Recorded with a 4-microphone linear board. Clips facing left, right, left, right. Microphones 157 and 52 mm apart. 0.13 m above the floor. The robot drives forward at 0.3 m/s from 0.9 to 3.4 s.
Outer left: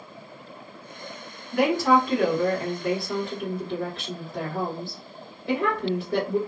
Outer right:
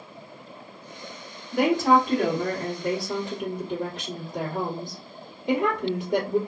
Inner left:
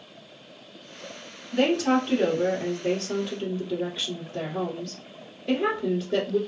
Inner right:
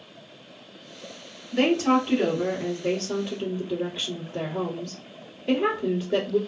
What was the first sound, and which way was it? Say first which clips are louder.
A woman speaking: even, inner right 1 dB; 25° right (ahead or behind).